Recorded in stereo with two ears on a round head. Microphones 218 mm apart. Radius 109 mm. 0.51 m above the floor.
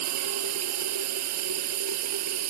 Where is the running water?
70° right (ahead or behind).